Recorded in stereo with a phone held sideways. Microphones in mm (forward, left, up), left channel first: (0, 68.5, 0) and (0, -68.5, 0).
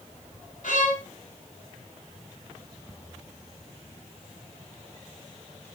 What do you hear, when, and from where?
0.6 s a violin: 85° left, 2 m